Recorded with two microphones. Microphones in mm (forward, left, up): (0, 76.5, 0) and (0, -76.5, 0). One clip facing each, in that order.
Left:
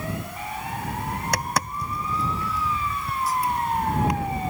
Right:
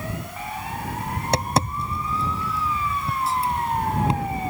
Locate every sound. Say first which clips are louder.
1.2 s tapping: right 6 dB; 25° right (ahead or behind)